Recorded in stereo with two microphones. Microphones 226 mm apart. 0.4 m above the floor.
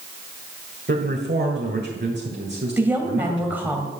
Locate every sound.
0.9 s a man speaking: 50° right (ahead or behind), 1.8 m
2.8 s a woman speaking: 10° right (ahead or behind), 2 m